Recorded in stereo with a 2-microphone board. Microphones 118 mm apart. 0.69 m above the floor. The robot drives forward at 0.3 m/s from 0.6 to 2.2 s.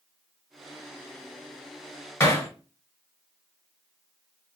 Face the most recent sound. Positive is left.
turn(degrees=25)  # may be behind; listen again after turning